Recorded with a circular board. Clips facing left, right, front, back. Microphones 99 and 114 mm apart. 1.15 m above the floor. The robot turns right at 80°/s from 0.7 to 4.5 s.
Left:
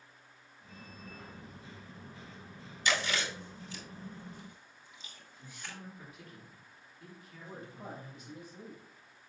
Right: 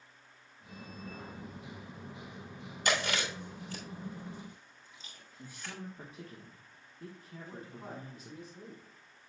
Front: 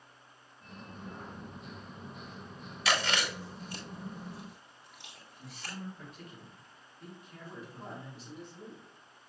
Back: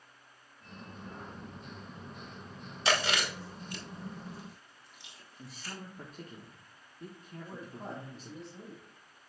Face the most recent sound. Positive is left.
turn(degrees=125)